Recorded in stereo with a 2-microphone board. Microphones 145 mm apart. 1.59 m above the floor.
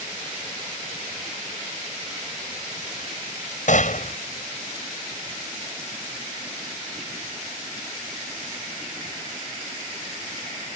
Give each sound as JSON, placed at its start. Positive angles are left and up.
{"t": 3.7, "sound": "a gunshot", "side_deg": 60}